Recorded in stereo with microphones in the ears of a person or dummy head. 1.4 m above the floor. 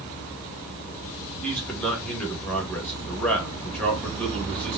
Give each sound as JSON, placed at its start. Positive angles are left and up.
{"t": 1.4, "sound": "a man speaking", "side_deg": 10, "distance_m": 1.8}